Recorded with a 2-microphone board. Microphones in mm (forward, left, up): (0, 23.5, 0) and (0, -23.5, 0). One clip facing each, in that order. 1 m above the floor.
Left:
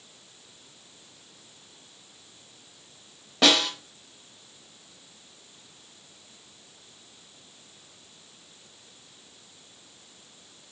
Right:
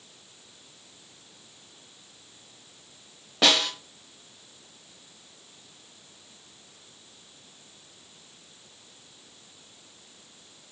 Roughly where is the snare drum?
Centre.